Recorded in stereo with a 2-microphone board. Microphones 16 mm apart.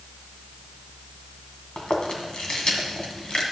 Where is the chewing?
55° left (ahead or behind), 2.0 m.